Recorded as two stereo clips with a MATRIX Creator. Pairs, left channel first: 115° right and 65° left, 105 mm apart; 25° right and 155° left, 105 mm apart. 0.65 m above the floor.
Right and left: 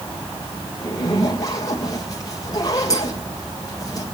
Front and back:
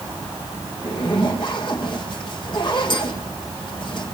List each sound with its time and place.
0.8 s a zipper: 60° right, 3 m